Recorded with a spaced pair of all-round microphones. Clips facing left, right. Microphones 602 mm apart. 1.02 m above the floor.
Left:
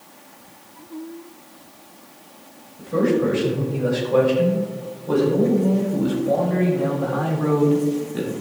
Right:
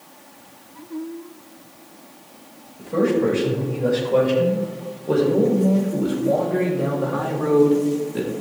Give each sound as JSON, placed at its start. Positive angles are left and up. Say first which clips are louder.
{"t": 2.8, "sound": "a man speaking", "louder": "even", "side_deg": 40, "distance_m": 4.5}